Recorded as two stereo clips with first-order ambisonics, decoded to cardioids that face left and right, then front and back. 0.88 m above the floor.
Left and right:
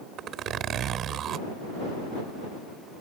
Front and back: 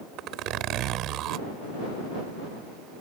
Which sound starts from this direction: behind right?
A zipper, at 0.2 s.